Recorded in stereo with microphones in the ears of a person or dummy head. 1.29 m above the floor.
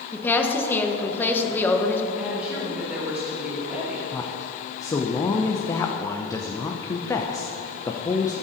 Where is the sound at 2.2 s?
Centre (ahead or behind), 2.5 m.